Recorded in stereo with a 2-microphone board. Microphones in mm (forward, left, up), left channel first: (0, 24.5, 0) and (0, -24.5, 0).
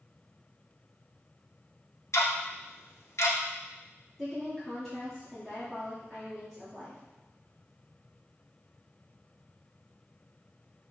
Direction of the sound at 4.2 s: Centre (ahead or behind).